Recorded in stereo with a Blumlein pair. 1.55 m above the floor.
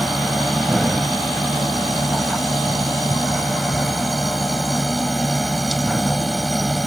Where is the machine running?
Straight ahead.